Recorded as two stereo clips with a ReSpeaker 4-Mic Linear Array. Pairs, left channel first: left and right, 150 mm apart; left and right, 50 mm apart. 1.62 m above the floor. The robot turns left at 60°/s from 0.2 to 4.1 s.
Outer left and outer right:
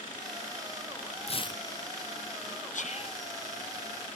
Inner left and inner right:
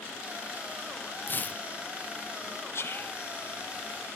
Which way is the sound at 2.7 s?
60° left (ahead or behind).